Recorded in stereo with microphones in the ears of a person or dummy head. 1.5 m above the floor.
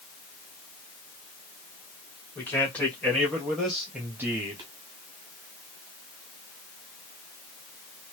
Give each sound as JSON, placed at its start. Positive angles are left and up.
{"t": 2.4, "sound": "a man speaking", "side_deg": 15, "distance_m": 2.0}